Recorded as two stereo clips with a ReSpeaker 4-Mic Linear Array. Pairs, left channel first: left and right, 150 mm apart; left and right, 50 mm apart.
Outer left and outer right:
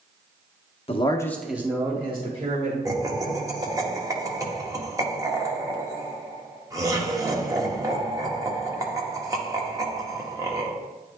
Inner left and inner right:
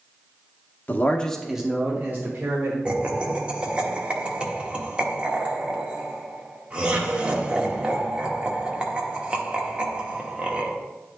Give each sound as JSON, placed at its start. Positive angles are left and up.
{"t": 0.9, "sound": "a man speaking", "side_deg": 40, "distance_m": 0.7}
{"t": 2.9, "sound": "laughter", "side_deg": -20, "distance_m": 1.1}